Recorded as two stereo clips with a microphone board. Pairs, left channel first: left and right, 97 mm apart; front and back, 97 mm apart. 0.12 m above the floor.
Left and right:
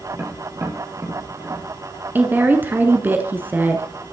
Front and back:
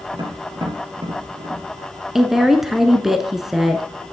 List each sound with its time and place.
0.1 s tapping: 145° right, 3 m
2.1 s a woman speaking: 100° right, 1.1 m